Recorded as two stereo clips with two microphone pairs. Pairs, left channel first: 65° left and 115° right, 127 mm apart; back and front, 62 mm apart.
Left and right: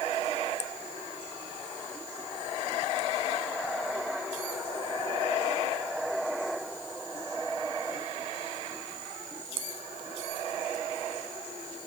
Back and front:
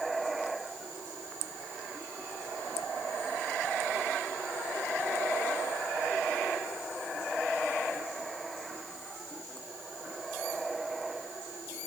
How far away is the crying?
No crying in this recording.